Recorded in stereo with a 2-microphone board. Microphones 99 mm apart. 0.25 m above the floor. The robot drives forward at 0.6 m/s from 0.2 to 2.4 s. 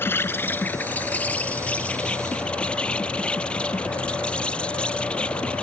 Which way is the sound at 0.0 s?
25° left (ahead or behind).